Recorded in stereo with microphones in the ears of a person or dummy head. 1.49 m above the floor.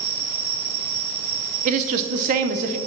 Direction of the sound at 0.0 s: 70° right (ahead or behind).